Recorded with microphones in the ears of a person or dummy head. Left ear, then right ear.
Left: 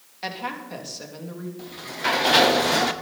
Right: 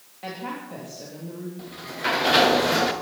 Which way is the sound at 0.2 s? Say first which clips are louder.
Left 3 dB; 60° left (ahead or behind).